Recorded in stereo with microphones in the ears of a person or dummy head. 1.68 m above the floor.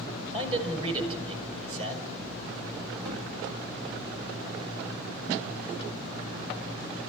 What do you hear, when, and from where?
0.3 s a man speaking: 35° right (ahead or behind), 6.5 m
3.0 s a gunshot: 60° right (ahead or behind), 2 m